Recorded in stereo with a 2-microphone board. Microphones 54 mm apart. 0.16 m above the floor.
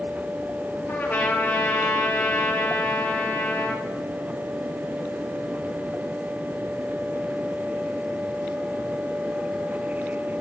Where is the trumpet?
30° left (ahead or behind), 3 m.